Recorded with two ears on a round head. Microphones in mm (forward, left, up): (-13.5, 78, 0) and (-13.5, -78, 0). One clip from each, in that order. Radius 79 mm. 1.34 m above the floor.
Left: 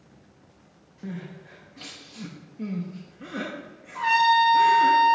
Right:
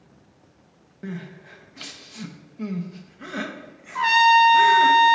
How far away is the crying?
About 0.7 m.